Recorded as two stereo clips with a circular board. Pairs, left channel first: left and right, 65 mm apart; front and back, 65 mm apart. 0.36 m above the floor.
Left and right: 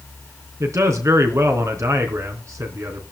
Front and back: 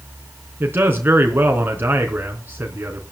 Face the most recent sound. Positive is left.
turn(degrees=-125)